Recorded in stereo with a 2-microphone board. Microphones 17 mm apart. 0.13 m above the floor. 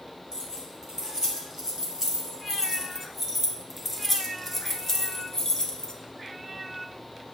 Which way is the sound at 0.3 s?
40° right (ahead or behind).